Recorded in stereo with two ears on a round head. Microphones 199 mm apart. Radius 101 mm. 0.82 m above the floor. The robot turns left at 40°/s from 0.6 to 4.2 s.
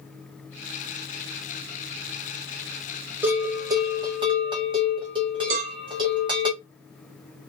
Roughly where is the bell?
Centre.